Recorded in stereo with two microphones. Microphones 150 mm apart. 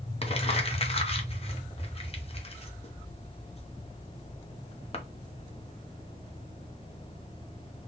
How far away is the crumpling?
About 0.7 m.